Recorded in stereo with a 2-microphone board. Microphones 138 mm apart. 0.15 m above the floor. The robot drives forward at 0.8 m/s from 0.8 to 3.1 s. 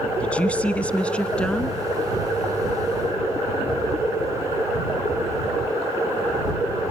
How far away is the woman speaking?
About 1.1 m.